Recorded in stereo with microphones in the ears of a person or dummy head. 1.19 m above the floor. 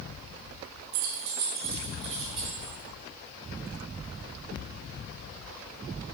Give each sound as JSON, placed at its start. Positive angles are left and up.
{"t": 0.9, "sound": "keys jangling", "side_deg": -70, "distance_m": 1.2}